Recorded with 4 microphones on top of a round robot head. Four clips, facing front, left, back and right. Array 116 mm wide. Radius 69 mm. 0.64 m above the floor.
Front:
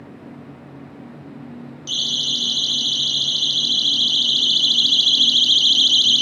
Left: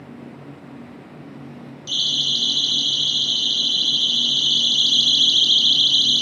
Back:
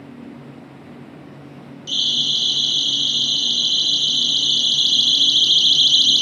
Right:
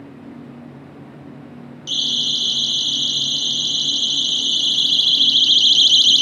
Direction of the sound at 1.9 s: 35° right.